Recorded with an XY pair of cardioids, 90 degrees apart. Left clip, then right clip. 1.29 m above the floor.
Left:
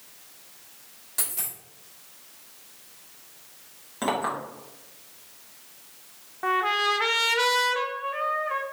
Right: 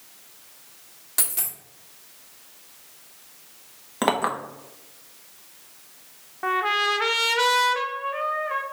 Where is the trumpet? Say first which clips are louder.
Right 1 dB; 10° right, 0.6 m.